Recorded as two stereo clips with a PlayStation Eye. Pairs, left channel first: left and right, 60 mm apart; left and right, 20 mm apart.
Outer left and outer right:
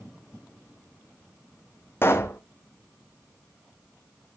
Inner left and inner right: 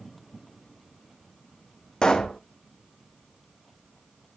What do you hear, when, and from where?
2.0 s a pop: 40° left (ahead or behind), 1.2 m